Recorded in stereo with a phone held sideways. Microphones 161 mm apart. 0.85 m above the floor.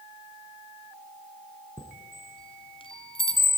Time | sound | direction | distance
1.8 | a chime | 35° left (ahead or behind) | 1.9 m